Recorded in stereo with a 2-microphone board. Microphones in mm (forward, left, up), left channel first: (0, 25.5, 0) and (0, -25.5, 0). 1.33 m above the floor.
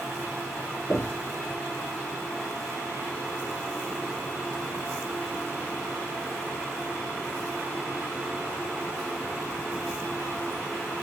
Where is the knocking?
40° left (ahead or behind), 1.0 m.